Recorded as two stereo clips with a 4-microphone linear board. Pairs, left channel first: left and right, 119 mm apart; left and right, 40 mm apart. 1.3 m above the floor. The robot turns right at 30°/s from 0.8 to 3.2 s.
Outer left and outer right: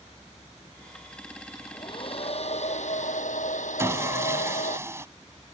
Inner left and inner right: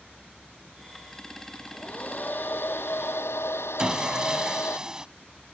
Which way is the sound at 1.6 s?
30° left.